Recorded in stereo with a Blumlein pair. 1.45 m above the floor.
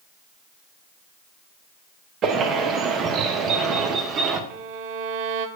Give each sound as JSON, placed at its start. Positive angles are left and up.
{"t": 2.2, "sound": "a bird", "azimuth_deg": -30, "distance_m": 0.8}
{"t": 4.5, "sound": "a violin", "azimuth_deg": -45, "distance_m": 0.5}